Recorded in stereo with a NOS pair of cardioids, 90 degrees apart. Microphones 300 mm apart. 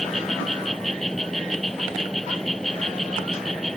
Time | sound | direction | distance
0.0 | an insect | straight ahead | ?